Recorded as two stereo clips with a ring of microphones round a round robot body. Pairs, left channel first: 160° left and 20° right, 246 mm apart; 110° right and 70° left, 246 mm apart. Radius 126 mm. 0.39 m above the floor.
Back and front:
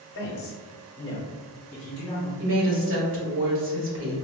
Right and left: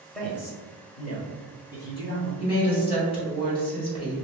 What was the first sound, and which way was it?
A man speaking, 155° left.